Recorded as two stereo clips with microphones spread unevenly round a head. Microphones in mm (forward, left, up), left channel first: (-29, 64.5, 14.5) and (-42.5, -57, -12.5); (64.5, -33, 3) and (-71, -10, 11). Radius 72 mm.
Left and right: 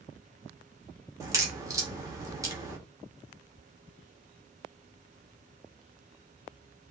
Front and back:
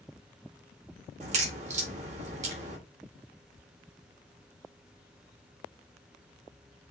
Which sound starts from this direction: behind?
A crack, at 1.2 s.